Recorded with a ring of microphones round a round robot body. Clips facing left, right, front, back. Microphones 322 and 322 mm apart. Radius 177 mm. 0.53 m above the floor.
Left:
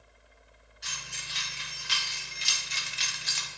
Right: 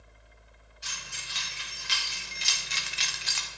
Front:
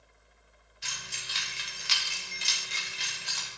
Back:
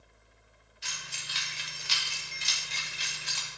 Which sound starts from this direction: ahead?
Keys jangling, at 0.8 s.